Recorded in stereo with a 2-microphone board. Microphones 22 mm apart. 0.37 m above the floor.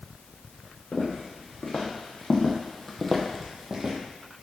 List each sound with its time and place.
0.9 s footsteps: 70° left (ahead or behind), 1.7 m; by 4.0 s 30° right (ahead or behind), 0.8 m